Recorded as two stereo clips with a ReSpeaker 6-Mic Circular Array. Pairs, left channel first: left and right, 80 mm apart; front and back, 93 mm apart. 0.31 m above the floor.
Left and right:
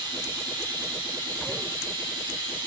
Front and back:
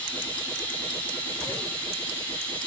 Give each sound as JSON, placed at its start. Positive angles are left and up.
{"t": 0.0, "sound": "running water", "azimuth_deg": -70, "distance_m": 9.0}